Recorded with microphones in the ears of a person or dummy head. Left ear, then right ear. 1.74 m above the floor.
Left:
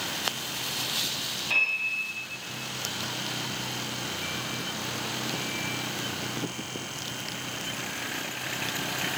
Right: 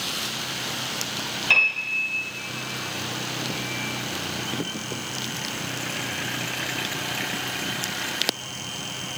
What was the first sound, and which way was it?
A piano, 65° right (ahead or behind).